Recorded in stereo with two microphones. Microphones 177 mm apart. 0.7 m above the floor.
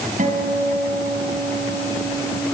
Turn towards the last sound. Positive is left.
turn(degrees=-45)  # may be behind; listen again after turning